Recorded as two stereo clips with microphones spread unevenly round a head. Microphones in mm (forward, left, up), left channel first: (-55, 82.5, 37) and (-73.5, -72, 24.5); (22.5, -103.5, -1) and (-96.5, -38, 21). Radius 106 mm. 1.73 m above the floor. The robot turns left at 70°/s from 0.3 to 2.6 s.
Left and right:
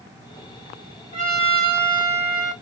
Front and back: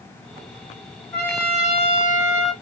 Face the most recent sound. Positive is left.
turn(degrees=-40)